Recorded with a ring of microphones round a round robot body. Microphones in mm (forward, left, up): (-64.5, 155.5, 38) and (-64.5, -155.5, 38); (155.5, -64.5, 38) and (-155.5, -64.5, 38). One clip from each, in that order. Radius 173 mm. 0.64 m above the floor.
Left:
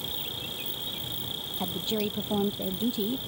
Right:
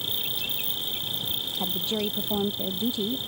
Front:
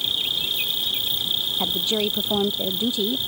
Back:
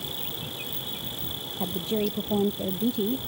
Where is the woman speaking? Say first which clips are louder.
Right 2 dB, front 7 dB; straight ahead.